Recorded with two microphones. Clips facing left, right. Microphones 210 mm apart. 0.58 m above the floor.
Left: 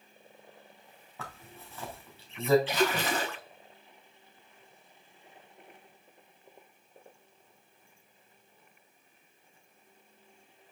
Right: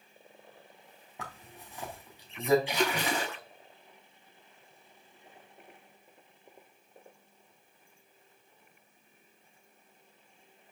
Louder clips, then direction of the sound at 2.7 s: Left 2 dB; 10° right (ahead or behind).